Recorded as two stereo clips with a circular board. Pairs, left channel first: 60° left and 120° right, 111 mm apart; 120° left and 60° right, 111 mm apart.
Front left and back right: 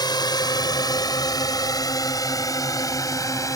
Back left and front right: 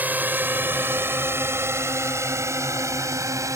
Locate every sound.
0.0 s a drone: 15° left; by 3.6 s straight ahead